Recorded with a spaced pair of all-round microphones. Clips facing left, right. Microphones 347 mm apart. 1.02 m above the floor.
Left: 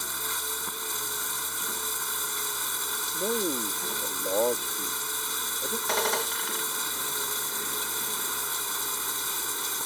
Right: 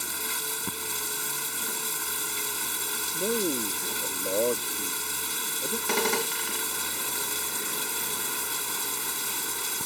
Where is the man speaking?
10° right (ahead or behind).